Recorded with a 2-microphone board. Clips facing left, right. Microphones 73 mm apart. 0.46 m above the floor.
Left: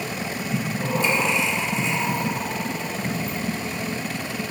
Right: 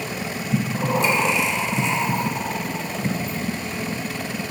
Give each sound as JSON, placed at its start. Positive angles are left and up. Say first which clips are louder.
{"t": 0.5, "sound": "breathing", "louder": "right 4 dB", "side_deg": -75, "distance_m": 0.6}